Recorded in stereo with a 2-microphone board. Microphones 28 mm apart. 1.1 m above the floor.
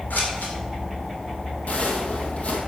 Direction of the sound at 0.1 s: 85° left.